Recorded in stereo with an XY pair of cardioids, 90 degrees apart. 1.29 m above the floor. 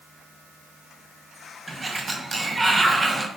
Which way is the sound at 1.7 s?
30° right.